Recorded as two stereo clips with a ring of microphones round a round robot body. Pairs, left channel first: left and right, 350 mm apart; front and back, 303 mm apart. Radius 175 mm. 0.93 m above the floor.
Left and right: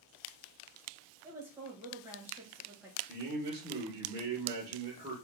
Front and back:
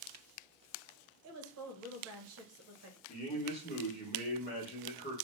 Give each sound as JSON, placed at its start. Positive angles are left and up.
{"t": 1.2, "sound": "a woman speaking", "azimuth_deg": -170, "distance_m": 0.8}
{"t": 3.1, "sound": "a man speaking", "azimuth_deg": -25, "distance_m": 1.0}